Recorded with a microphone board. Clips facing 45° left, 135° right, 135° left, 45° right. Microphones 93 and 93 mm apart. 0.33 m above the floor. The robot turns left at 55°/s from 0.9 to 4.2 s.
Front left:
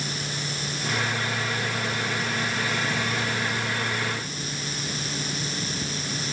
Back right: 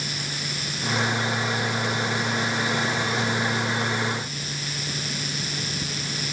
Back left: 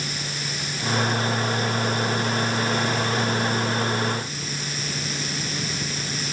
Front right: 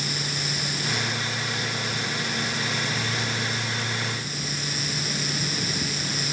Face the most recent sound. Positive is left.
No sound to turn to.